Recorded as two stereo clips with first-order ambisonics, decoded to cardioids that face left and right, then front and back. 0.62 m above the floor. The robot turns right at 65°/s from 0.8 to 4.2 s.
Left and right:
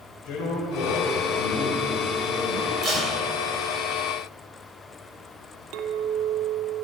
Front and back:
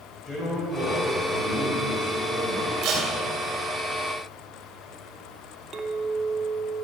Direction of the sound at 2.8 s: 155° right.